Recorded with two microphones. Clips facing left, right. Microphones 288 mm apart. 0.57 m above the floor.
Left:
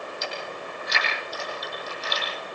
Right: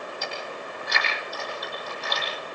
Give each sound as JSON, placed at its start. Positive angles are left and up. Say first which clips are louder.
{"t": 0.2, "sound": "chewing", "louder": "left 1 dB", "side_deg": -60, "distance_m": 9.0}